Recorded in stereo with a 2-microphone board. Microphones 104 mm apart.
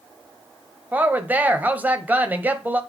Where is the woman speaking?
15° right (ahead or behind), 1.1 m.